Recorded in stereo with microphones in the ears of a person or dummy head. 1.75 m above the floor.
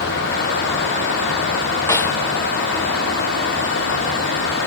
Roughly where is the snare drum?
Centre.